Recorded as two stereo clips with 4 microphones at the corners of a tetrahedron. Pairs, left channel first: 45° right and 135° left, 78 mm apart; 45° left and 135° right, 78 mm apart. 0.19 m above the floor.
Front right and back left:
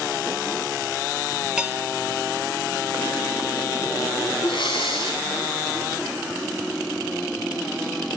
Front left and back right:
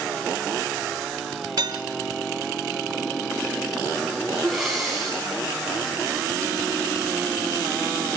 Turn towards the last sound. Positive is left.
turn(degrees=-45)